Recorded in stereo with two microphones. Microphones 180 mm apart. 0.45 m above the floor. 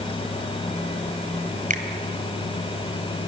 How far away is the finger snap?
About 2 m.